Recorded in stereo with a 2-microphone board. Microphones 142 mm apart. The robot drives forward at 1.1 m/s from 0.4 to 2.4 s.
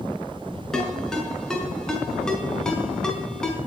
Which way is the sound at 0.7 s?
5° left (ahead or behind).